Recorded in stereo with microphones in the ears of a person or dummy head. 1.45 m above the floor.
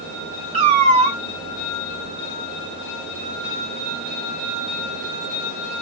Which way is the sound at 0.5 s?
35° right (ahead or behind).